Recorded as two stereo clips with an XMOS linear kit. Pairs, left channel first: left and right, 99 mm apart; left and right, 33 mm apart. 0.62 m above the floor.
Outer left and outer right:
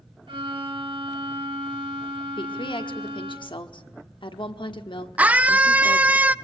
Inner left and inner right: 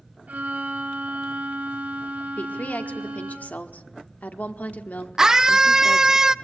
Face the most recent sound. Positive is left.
turn(degrees=-15)  # may be behind; listen again after turning